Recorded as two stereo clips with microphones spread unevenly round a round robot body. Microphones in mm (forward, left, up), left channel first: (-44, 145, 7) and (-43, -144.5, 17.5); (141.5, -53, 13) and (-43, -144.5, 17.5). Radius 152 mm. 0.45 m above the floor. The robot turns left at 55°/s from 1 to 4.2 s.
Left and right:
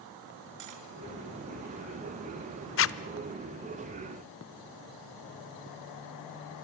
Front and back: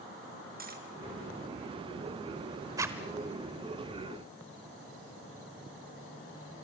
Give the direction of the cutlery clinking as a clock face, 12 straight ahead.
4 o'clock.